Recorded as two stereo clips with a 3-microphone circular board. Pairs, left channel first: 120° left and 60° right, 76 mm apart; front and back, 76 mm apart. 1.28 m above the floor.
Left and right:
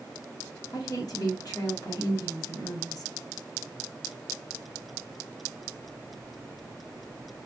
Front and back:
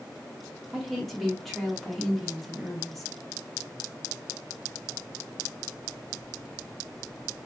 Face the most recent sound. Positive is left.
turn(degrees=85)